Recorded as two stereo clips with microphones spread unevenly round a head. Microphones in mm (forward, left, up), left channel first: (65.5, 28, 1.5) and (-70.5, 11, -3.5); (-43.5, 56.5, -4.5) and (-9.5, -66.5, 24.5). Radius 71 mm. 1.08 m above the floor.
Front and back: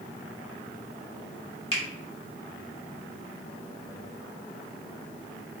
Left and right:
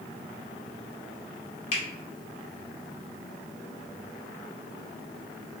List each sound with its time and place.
1.7 s a finger snap: 60° left, 1.2 m